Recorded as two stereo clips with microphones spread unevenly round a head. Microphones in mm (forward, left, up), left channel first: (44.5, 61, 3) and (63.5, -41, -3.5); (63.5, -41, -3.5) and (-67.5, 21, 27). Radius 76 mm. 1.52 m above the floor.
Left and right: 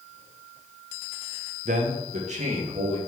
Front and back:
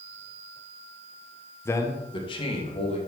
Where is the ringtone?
No ringtone in this recording.